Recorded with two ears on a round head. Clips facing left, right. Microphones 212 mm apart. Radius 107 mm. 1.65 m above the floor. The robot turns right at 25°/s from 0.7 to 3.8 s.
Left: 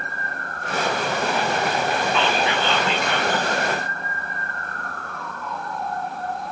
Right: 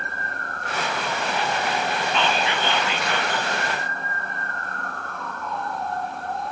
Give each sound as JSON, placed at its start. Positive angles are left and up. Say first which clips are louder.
{"t": 2.1, "sound": "whispering", "louder": "left 2 dB", "side_deg": -25, "distance_m": 2.0}